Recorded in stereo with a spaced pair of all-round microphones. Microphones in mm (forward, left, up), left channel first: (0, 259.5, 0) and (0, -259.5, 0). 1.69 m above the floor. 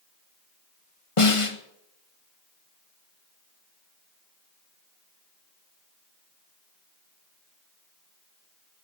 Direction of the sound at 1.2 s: 75° left (ahead or behind).